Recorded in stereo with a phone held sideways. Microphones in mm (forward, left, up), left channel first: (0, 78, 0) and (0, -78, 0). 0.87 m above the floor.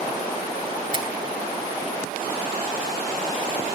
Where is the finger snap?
30° right (ahead or behind), 2.5 m.